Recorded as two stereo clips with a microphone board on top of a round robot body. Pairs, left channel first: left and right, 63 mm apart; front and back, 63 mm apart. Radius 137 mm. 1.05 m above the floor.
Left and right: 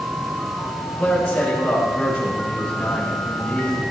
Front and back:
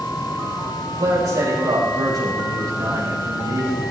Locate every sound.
1.0 s a man speaking: 170° left, 6.5 m